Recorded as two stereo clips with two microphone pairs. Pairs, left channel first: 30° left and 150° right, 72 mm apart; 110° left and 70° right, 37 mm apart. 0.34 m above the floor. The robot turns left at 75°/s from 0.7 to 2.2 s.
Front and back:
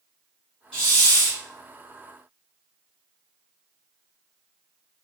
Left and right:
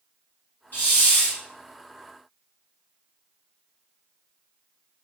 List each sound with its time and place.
0.7 s a hiss: 110° left, 1.8 m; by 1.4 s 60° left, 1.8 m